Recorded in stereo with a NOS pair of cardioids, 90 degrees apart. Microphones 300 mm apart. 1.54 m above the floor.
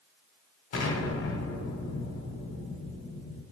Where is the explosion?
50° left, 0.9 m.